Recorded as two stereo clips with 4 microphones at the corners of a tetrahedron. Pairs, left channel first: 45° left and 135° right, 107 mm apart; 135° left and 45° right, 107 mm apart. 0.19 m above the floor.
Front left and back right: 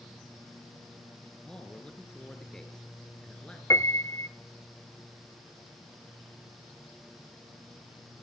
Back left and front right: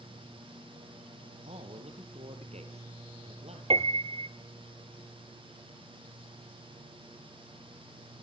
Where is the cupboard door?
No cupboard door in this recording.